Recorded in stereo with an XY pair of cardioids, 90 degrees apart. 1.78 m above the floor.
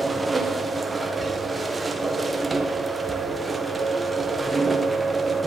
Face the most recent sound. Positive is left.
turn(degrees=-25)